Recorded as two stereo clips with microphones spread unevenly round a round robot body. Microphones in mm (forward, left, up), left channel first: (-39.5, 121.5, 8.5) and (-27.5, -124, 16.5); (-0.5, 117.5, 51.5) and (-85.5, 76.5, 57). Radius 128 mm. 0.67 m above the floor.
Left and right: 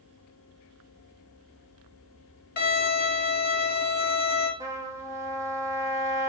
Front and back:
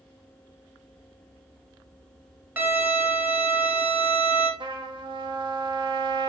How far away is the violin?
About 1.4 m.